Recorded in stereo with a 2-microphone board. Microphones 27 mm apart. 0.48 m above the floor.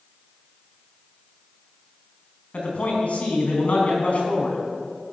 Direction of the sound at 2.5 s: 50° left (ahead or behind).